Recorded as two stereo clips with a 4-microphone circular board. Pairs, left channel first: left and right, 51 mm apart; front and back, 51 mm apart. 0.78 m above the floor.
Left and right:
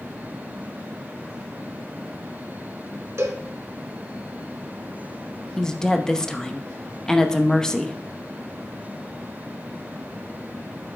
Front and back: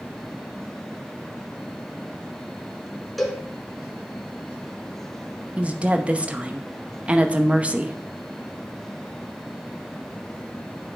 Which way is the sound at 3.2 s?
85° right.